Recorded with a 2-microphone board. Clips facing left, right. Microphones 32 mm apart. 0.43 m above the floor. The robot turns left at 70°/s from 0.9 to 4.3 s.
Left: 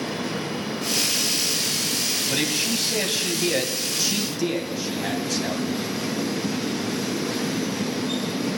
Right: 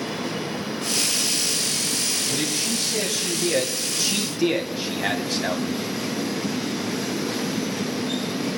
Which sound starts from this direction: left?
A man speaking, at 2.3 s.